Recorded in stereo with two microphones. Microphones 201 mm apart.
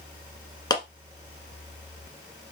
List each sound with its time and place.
0.7 s a clap: 20° left (ahead or behind), 1.5 m